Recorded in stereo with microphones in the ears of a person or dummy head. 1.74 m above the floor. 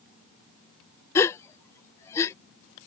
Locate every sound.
1.1 s a gasp: 20° left (ahead or behind)